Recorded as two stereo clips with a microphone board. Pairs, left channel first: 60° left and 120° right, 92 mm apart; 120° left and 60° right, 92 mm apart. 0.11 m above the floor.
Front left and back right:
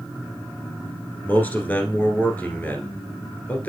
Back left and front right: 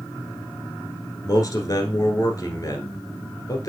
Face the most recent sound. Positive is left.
turn(degrees=125)